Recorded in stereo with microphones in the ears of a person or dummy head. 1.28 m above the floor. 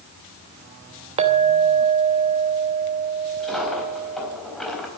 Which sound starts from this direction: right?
A clink, at 1.2 s.